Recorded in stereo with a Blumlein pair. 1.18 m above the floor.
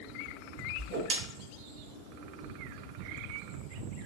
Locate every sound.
0.8 s a whoosh: 30° right, 2 m